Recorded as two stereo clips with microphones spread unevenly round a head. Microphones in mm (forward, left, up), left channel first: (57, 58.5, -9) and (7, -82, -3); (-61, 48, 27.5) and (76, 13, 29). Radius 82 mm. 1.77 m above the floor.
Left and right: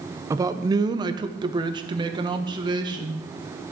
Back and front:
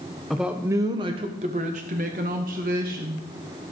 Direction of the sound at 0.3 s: 105° right.